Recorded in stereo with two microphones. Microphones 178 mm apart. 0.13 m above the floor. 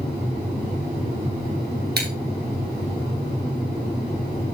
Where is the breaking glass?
65° right (ahead or behind), 2 m.